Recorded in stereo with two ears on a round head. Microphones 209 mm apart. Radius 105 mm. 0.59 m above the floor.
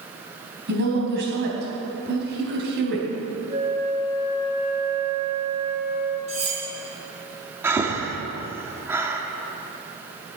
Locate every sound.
0.7 s a woman speaking: 50° right (ahead or behind), 3.5 m
3.5 s a flute: 20° right (ahead or behind), 3 m
6.3 s cutlery clinking: 30° right (ahead or behind), 3 m
7.6 s breathing: 10° right (ahead or behind), 1.1 m